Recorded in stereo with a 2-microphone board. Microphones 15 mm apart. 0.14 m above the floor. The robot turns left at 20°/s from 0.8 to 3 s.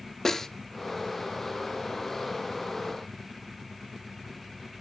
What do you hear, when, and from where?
0.2 s a snare drum: 25° left (ahead or behind), 1.1 m